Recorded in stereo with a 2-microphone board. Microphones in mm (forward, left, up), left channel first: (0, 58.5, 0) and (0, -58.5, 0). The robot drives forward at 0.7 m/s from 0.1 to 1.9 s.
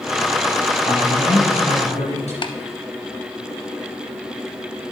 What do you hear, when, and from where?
0.8 s a man speaking: 70° left (ahead or behind), 3 m; by 2.3 s 75° left (ahead or behind), 3 m
2.4 s tapping: 45° left (ahead or behind), 0.5 m